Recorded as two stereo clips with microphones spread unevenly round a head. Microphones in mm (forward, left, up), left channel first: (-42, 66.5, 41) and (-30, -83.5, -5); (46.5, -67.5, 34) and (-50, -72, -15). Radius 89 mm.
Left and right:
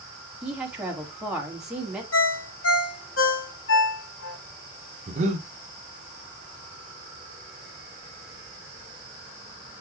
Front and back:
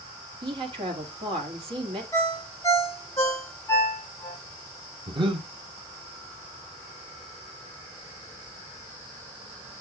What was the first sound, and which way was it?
A woman speaking, 165° right.